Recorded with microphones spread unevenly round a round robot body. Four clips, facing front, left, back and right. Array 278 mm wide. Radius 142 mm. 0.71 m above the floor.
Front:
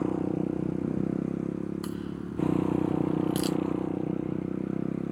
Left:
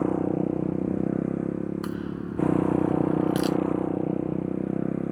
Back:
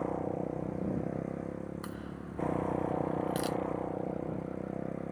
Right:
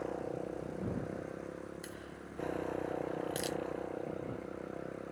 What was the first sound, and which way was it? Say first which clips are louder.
A motorcycle: left 14 dB, front 6 dB; 75° left.